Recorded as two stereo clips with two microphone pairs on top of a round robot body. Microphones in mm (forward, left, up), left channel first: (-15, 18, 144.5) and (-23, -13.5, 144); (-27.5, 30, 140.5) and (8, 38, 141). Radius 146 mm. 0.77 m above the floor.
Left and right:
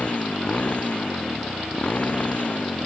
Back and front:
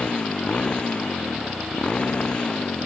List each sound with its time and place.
0.0 s a motorcycle: 125° left